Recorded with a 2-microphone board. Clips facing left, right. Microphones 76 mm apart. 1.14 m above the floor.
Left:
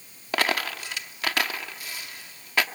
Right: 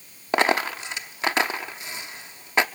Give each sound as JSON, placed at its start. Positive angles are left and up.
{"t": 0.3, "sound": "a dropped coin", "side_deg": -25, "distance_m": 0.8}